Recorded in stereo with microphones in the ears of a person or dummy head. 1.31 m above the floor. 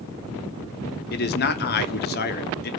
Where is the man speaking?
50° left (ahead or behind), 0.6 m.